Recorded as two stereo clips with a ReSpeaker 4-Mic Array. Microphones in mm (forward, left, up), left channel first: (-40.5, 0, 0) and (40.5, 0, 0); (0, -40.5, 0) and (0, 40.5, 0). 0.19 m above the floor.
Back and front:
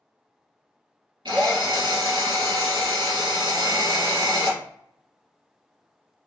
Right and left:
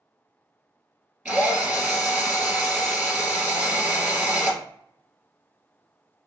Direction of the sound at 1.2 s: 20° left.